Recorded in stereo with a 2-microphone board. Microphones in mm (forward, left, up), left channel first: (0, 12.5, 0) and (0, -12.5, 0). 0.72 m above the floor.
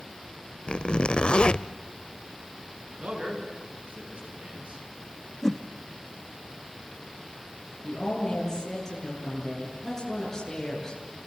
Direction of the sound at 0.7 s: 50° left (ahead or behind).